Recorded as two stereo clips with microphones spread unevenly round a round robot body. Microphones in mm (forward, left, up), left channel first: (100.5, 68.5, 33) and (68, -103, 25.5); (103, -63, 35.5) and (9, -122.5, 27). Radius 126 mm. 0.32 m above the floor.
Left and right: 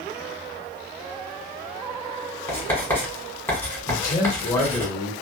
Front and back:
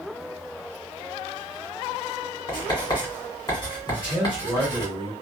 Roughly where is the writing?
Ahead.